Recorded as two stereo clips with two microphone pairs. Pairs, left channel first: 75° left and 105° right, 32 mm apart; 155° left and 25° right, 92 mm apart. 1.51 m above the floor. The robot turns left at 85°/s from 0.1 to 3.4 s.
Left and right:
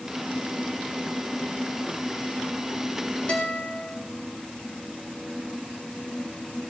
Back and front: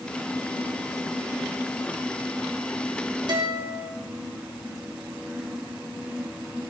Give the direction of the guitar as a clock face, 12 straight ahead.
11 o'clock.